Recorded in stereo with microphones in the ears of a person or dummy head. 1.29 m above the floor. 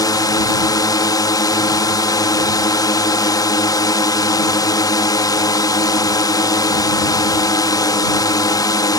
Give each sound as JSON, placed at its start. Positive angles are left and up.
{"t": 0.0, "sound": "a drone", "side_deg": 20}